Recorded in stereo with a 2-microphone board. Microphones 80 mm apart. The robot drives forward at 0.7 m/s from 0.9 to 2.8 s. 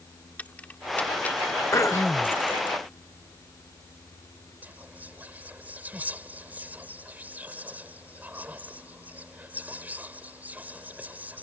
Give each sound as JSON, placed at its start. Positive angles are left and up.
{"t": 0.4, "sound": "keys jangling", "side_deg": 20}
{"t": 1.7, "sound": "throat clearing", "side_deg": 40}
{"t": 4.6, "sound": "whispering", "side_deg": -20}